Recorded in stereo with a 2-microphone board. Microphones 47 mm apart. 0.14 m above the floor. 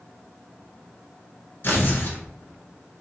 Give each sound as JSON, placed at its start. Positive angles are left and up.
{"t": 1.6, "sound": "tearing paper", "side_deg": 45, "distance_m": 1.2}